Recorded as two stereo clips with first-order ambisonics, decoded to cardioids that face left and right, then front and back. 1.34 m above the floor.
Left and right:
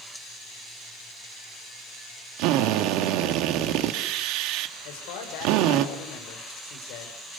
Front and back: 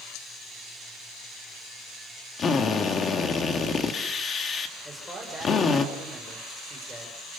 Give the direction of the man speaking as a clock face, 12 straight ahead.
9 o'clock.